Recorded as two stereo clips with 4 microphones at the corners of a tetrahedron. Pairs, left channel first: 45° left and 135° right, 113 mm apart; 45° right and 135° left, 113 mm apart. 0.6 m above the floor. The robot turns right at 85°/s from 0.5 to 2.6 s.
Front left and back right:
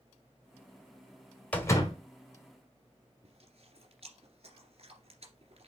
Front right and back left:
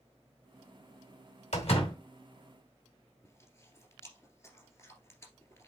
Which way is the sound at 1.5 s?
35° right.